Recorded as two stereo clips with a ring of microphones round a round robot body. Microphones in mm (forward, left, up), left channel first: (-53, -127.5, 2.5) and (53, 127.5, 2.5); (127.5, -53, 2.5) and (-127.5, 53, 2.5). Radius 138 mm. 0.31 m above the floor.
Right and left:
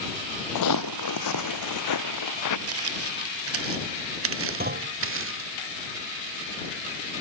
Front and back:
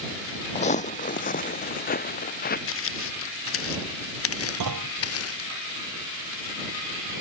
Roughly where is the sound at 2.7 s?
Ahead left.